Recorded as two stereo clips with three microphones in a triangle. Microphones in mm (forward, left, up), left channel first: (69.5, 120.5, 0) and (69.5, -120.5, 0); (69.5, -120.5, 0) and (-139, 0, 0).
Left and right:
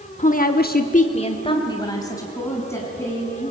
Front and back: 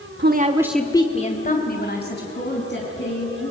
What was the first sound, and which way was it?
A woman speaking, 140° left.